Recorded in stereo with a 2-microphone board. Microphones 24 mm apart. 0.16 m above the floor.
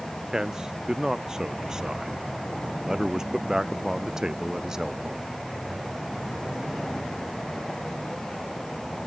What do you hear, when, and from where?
0.3 s a man speaking: 25° right (ahead or behind)